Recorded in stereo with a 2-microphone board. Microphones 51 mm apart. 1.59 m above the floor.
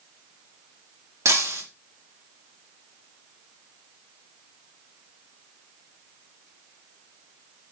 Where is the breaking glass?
70° right (ahead or behind), 2.5 m.